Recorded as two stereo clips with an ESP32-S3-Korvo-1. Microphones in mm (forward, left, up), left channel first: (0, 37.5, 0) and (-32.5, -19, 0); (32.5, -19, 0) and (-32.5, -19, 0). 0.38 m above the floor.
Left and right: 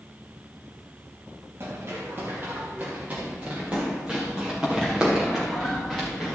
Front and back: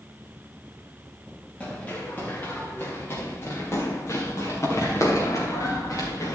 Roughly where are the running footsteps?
Right.